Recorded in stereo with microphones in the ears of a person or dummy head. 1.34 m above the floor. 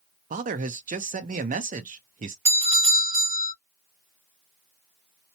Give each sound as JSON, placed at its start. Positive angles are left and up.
{"t": 0.3, "sound": "a man speaking", "side_deg": -35, "distance_m": 0.5}
{"t": 2.5, "sound": "a doorbell", "side_deg": -30, "distance_m": 1.6}